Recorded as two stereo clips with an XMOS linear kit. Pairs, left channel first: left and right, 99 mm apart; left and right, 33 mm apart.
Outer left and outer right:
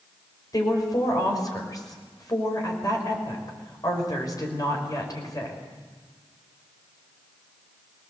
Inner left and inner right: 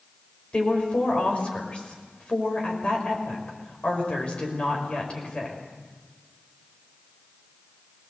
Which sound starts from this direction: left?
A woman speaking, at 0.5 s.